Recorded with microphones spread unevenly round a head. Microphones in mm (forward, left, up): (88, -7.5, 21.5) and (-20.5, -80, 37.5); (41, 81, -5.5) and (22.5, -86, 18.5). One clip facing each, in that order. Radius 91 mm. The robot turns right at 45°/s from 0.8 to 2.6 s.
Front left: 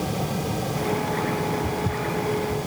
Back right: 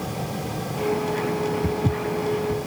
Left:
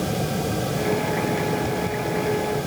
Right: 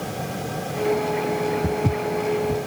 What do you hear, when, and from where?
1.6 s footsteps: 115° right; by 2.6 s 75° right